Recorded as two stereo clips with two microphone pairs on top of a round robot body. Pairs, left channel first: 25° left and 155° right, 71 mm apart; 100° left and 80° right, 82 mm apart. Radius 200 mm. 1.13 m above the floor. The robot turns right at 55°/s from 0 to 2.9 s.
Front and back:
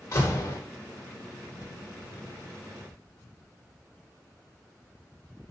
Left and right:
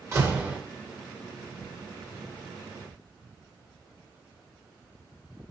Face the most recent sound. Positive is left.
turn(degrees=130)